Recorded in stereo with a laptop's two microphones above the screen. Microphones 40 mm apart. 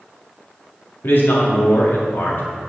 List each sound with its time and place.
1.0 s a man speaking: 60° left (ahead or behind), 1.7 m